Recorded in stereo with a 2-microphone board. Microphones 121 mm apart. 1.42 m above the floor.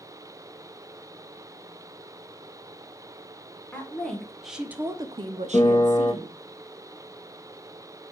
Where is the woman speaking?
10° left (ahead or behind), 1.5 m; by 6.4 s 65° right (ahead or behind), 1.1 m.